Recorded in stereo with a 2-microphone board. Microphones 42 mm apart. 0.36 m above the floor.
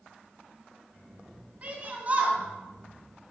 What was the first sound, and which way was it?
A shout, 40° right (ahead or behind).